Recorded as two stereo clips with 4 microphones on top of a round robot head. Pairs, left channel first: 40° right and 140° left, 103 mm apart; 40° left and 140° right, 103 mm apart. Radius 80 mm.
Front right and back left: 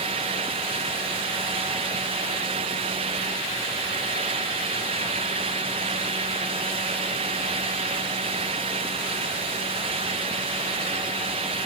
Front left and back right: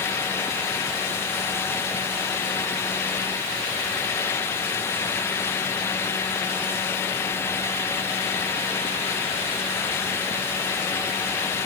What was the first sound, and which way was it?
Only background noise.